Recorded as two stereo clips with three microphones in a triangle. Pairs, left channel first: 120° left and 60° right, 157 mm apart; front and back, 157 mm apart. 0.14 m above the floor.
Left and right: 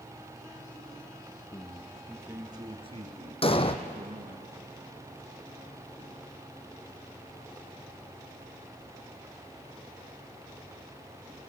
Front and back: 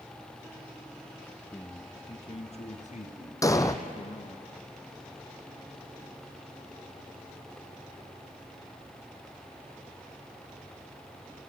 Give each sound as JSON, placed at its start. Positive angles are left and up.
{"t": 1.5, "sound": "a man speaking", "azimuth_deg": 75, "distance_m": 1.2}
{"t": 3.4, "sound": "an explosion", "azimuth_deg": 70, "distance_m": 1.2}